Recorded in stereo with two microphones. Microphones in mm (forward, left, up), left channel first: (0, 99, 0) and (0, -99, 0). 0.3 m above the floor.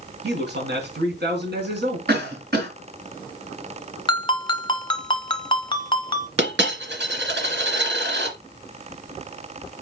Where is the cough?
60° right (ahead or behind), 5 m.